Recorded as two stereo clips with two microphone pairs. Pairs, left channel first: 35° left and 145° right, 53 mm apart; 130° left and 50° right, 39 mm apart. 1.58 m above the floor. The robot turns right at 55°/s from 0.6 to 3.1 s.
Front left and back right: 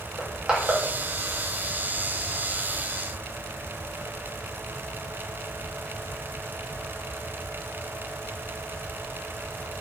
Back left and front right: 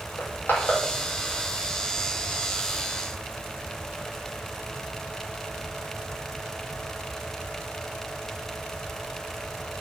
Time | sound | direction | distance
0.2 | crushing | 140° left | 2.5 m